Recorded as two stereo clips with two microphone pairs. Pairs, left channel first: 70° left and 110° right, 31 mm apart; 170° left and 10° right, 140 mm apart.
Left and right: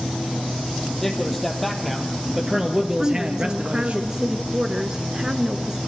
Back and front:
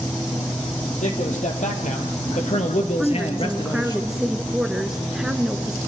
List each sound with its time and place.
1.0 s a man speaking: 150° left, 4 m; by 4.0 s 135° right, 2 m
3.0 s a woman speaking: 90° right, 1.3 m